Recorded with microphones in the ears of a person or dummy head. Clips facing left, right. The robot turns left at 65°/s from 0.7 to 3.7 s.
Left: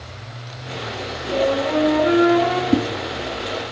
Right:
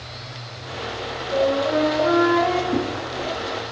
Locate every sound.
1.3 s a flute: 150° right, 2.5 m; by 2.6 s 125° left, 2.5 m
2.7 s a whoosh: 40° left (ahead or behind), 1.1 m; by 2.9 s 35° left (ahead or behind), 1.1 m